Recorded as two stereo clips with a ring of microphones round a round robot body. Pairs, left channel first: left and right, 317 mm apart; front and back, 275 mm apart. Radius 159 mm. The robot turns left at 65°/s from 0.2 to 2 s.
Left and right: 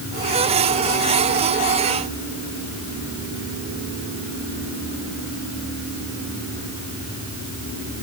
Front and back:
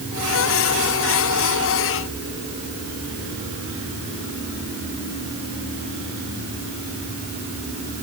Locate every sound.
Only background noise.